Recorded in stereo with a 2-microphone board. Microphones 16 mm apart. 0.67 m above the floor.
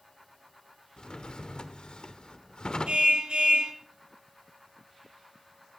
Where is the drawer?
60° left (ahead or behind), 1.2 m.